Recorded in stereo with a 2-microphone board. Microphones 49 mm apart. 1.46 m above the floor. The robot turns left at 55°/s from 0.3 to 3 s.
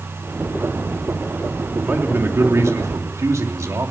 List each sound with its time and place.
1.8 s a man speaking: 30° right, 3 m; by 3.9 s 95° right, 3 m